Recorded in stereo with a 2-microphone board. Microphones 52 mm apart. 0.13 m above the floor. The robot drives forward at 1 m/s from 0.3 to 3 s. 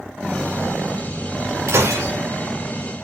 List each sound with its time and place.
1.7 s breaking glass: 70° right (ahead or behind), 4.5 m; by 2.1 s 65° right (ahead or behind), 4.5 m